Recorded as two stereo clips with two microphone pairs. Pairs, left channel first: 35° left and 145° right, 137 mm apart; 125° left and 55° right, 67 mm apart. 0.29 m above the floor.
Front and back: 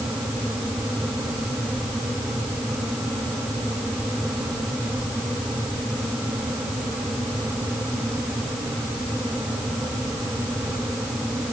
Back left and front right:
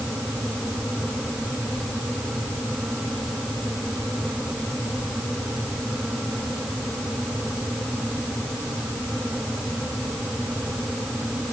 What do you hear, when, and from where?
Only background noise.